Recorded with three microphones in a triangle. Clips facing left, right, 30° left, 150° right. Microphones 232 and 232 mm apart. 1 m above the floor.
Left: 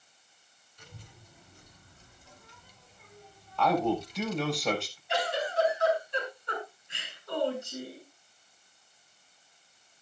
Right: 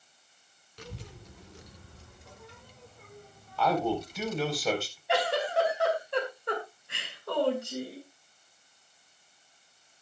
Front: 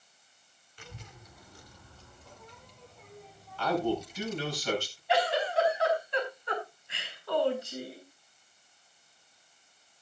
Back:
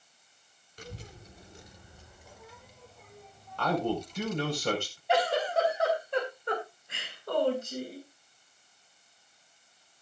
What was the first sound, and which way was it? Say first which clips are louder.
A child speaking: right 9 dB, back 5 dB; 100° right.